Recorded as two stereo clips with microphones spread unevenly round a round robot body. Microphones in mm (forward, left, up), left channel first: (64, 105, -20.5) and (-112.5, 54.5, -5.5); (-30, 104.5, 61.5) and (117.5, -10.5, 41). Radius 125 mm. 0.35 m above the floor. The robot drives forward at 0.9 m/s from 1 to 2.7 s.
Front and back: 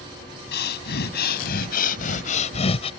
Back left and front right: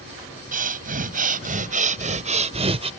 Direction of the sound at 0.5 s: 5° right.